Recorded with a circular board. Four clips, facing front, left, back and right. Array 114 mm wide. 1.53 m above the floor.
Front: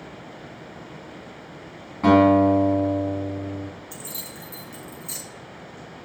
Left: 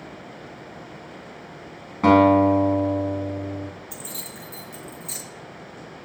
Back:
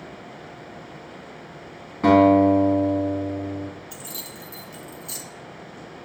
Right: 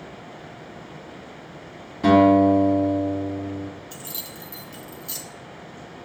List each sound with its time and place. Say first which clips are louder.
2.0 s a guitar: even, back 1 dB; 85° left, 1.8 m
3.9 s keys jangling: even, even; 65° left, 0.7 m